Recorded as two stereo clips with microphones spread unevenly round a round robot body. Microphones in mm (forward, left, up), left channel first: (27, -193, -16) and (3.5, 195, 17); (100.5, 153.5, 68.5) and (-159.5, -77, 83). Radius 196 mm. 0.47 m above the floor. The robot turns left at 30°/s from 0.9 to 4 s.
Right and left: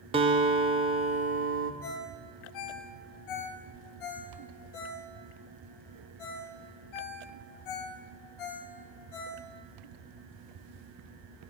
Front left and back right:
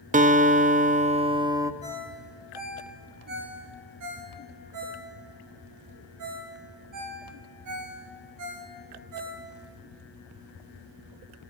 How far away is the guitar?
About 0.5 m.